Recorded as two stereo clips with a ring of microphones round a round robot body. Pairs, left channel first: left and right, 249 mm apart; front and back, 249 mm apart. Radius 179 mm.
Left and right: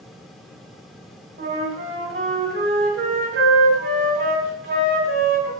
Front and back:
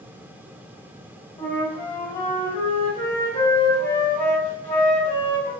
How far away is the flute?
About 1.9 m.